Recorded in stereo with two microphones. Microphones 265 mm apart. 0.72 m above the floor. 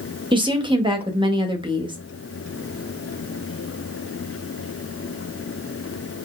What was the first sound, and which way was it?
A woman speaking, 15° right (ahead or behind).